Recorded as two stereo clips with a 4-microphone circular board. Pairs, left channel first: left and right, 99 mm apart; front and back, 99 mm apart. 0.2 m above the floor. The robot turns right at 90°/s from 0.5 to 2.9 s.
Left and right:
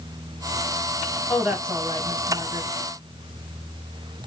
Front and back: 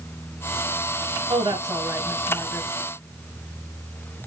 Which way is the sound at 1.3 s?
Straight behind.